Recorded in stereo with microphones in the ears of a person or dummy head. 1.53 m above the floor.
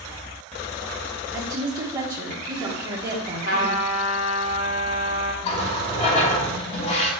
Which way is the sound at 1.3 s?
15° right (ahead or behind).